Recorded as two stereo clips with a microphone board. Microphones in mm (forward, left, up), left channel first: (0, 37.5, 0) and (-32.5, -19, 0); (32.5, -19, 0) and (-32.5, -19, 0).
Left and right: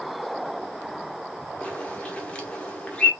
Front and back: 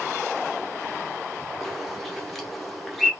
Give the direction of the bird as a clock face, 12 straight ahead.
9 o'clock.